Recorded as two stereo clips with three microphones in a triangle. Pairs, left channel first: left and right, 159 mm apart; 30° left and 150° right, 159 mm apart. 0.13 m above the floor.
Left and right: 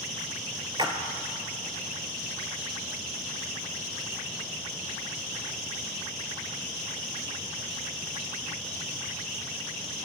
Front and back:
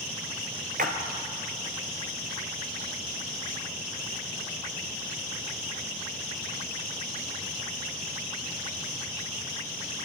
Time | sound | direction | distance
0.8 | a splash | 150° right | 1.2 m